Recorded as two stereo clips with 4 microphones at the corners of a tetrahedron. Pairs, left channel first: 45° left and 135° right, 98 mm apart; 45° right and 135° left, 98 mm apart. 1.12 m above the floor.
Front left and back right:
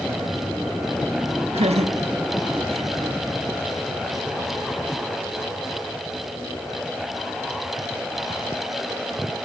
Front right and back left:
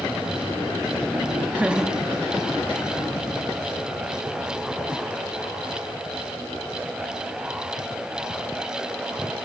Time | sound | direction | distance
1.5 | laughter | 150° right | 1.5 m